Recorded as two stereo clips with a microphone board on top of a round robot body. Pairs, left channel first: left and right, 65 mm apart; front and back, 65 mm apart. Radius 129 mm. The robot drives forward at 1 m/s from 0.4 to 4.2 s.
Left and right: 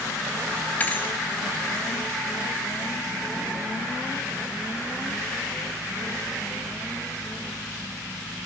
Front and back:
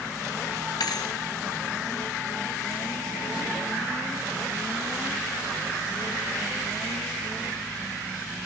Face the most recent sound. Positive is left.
turn(degrees=145)